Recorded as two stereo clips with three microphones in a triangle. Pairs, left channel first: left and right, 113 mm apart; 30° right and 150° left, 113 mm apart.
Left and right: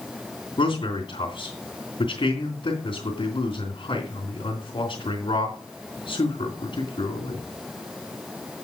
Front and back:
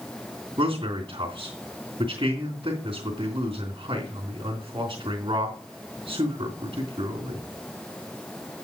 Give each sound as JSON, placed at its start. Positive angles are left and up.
{"t": 0.6, "sound": "a man speaking", "azimuth_deg": 120, "distance_m": 3.0}